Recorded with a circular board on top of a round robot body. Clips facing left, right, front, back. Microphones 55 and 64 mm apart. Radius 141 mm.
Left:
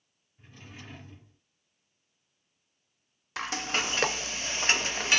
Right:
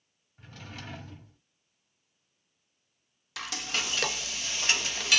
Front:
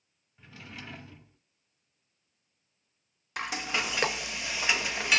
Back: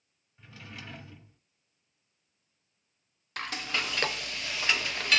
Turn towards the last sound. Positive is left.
turn(degrees=65)